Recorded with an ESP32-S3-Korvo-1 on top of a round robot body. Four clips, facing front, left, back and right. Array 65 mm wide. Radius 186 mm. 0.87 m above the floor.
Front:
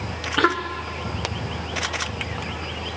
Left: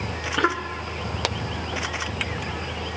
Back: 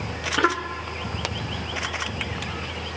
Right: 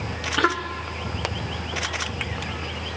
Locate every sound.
Only background noise.